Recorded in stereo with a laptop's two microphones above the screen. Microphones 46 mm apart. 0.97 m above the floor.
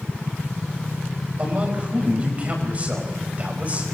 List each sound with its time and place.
1.4 s a man speaking: 30° right (ahead or behind), 4.5 m